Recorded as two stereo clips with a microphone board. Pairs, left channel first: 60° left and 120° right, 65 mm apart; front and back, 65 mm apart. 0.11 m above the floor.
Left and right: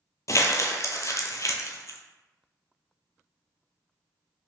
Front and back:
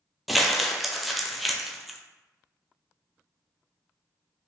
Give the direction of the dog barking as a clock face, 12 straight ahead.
No dog barking in this recording.